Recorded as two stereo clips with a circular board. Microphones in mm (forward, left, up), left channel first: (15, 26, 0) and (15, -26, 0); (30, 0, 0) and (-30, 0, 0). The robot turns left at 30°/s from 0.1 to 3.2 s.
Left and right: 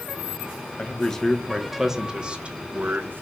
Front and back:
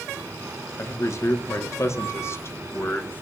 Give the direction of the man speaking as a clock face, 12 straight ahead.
11 o'clock.